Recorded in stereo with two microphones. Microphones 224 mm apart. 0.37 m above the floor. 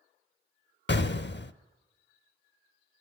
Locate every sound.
0.9 s an explosion: 55° left (ahead or behind), 0.6 m